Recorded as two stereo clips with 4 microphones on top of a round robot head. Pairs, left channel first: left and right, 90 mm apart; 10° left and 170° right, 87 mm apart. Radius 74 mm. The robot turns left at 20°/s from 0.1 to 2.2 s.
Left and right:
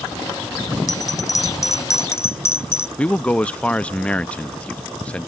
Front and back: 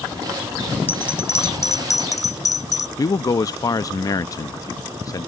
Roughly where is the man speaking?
Ahead.